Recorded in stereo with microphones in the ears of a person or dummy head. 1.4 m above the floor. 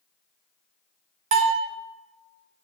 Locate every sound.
1.3 s a bell: 40° right (ahead or behind), 0.6 m